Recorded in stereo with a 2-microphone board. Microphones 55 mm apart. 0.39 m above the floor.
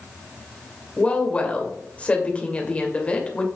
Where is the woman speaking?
20° left (ahead or behind), 1.8 m.